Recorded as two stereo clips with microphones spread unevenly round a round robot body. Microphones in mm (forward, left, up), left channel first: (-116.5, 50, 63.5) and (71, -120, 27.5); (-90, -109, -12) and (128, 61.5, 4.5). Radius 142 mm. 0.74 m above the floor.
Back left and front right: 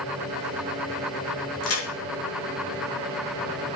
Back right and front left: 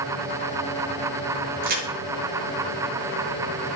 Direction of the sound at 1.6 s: 100° left.